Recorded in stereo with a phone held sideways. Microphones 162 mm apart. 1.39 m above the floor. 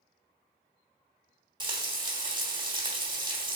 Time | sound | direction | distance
1.6 | frying | 30° right (ahead or behind) | 1.2 m